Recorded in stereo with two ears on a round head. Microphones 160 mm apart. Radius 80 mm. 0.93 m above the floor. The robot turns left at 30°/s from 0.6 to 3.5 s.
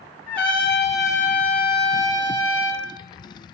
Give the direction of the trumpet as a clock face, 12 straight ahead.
12 o'clock.